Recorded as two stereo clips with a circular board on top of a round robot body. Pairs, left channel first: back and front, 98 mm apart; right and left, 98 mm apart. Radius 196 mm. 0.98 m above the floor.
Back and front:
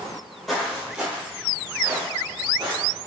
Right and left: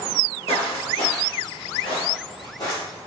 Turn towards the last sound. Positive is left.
turn(degrees=-30)